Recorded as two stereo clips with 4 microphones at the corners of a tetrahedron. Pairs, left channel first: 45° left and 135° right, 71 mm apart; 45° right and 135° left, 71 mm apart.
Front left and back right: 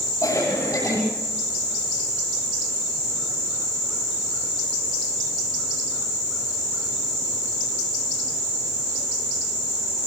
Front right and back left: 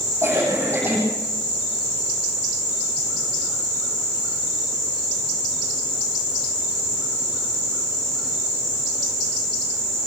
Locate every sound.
0.2 s a cough: 75° left, 10 m